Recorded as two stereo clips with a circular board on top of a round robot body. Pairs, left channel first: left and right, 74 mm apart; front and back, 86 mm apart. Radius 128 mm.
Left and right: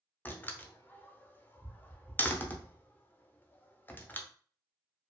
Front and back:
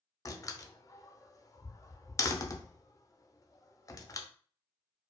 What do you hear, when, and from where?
0.2 s a door slam: 35° left, 0.8 m